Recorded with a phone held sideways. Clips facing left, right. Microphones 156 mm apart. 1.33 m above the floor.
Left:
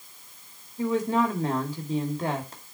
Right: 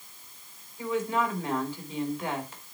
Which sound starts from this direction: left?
A woman speaking, at 0.8 s.